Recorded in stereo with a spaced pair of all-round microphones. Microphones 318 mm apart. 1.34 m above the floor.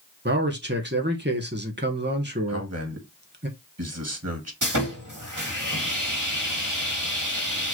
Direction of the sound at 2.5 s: 50° right (ahead or behind).